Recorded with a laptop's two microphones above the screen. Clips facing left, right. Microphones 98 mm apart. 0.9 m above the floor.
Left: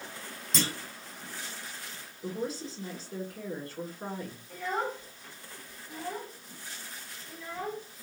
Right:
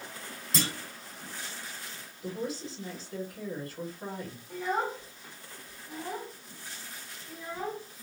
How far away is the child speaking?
About 0.9 m.